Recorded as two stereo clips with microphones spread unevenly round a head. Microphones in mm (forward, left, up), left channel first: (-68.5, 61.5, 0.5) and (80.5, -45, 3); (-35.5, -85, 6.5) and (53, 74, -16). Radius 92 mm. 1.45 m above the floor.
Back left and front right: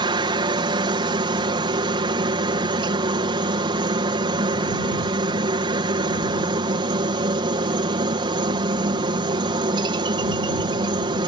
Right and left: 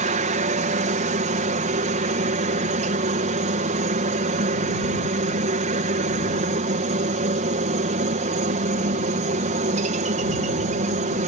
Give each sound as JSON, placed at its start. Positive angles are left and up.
{"t": 0.0, "sound": "a helicopter", "azimuth_deg": 25}